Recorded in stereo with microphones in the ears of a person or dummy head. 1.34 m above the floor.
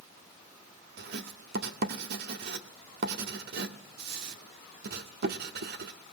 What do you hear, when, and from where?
1.0 s writing: 60° right (ahead or behind), 1.9 m